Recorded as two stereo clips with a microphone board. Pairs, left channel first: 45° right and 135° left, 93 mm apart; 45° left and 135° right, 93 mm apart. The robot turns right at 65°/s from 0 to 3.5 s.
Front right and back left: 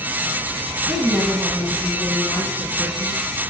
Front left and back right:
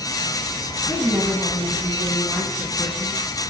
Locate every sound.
0.9 s a woman speaking: 150° right, 1.5 m; by 3.2 s 5° left, 1.5 m